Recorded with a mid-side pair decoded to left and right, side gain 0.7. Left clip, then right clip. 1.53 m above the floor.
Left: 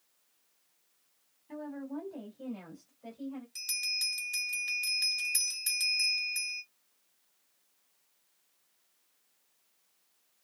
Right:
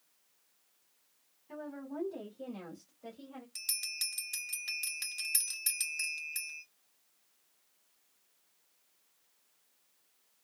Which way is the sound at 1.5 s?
Straight ahead.